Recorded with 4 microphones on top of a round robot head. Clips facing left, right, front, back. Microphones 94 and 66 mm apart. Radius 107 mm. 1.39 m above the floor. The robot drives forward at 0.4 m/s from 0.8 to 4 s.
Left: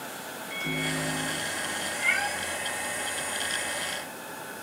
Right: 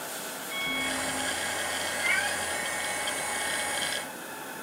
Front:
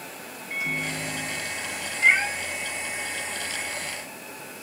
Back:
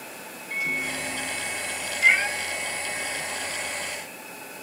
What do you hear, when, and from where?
0.5 s a microwave: 70° left, 2 m; by 1.9 s 80° left, 2.0 m
2.0 s a cat meowing: 80° left, 2 m